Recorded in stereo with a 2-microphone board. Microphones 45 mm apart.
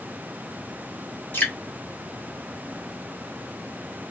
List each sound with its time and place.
1.3 s dripping: 35° left (ahead or behind), 2.0 m